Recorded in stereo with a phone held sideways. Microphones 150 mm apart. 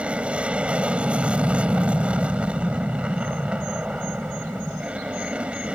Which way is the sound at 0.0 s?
5° right (ahead or behind).